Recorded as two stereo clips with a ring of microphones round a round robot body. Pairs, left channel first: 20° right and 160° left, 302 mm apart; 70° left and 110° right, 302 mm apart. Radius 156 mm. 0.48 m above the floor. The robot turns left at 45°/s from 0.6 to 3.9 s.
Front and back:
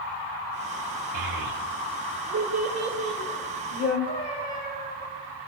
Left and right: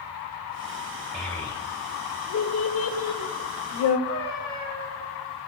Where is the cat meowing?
85° right, 5 m.